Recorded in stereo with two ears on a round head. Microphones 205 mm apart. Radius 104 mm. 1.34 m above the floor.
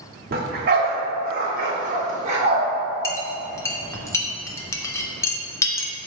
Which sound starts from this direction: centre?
A clink, at 3.0 s.